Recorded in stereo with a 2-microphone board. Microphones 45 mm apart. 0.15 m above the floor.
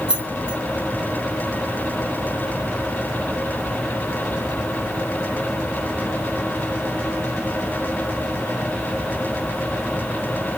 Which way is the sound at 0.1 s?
20° right (ahead or behind).